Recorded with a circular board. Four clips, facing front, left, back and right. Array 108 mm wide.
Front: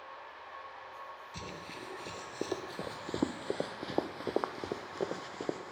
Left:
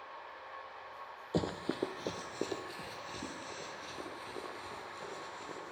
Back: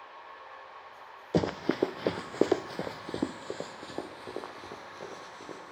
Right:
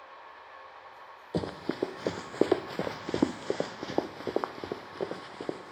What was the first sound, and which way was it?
Running footsteps, 175° right.